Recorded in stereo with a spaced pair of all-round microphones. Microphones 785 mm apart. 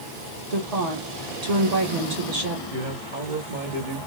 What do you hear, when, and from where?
0.5 s a woman speaking: 55° right (ahead or behind), 1.4 m
2.7 s a man speaking: 70° right (ahead or behind), 1.6 m